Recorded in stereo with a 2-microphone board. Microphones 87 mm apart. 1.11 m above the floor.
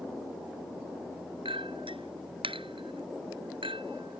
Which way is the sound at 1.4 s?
85° right.